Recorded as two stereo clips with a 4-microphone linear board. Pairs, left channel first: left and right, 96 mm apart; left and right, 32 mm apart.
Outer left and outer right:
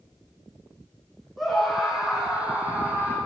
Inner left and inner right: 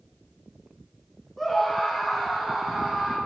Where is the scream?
Centre (ahead or behind), 5.5 m; by 3.2 s 20° right (ahead or behind), 6 m.